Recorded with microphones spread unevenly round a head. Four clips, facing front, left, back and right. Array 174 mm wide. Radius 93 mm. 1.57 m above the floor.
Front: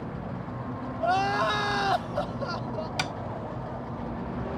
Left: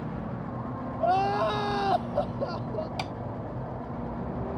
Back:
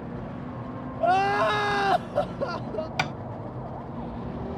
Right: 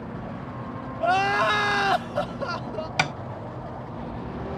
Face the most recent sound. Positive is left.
turn(degrees=-95)